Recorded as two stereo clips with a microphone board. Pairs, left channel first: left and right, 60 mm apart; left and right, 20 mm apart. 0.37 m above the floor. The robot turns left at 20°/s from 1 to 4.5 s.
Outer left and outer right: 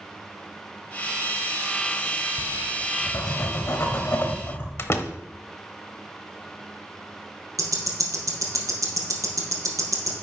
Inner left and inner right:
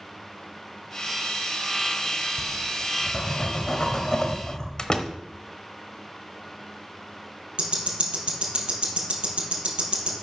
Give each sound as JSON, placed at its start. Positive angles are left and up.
{"t": 2.4, "sound": "writing", "azimuth_deg": 90, "distance_m": 1.5}
{"t": 4.8, "sound": "a door slam", "side_deg": 45, "distance_m": 0.9}
{"t": 7.6, "sound": "ticking", "side_deg": -70, "distance_m": 3.0}